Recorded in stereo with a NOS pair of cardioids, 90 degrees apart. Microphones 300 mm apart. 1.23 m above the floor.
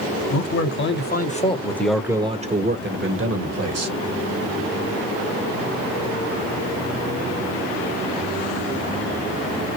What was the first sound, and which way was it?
A man speaking, 50° left.